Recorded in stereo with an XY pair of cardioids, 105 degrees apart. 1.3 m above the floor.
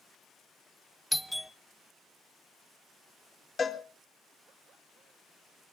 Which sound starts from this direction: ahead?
A doorbell, at 1.1 s.